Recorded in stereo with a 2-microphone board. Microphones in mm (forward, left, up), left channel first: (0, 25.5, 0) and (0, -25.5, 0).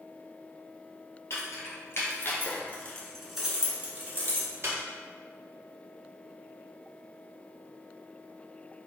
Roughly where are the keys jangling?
Left.